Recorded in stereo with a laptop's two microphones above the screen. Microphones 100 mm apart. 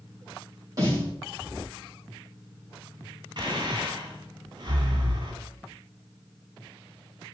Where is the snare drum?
35° right (ahead or behind), 4 m.